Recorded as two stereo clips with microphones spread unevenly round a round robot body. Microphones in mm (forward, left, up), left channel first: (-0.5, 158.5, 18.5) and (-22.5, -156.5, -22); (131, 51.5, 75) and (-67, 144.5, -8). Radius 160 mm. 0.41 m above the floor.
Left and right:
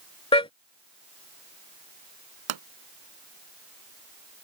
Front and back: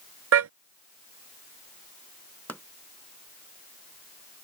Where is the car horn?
160° left.